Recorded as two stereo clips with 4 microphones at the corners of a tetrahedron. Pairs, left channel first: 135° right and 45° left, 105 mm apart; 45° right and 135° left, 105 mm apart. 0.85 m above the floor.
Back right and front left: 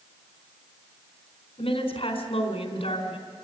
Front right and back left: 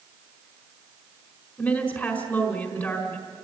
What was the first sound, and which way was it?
A woman speaking, 115° right.